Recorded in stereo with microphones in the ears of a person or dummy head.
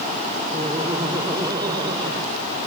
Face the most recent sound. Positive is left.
turn(degrees=-25)  # may be behind; listen again after turning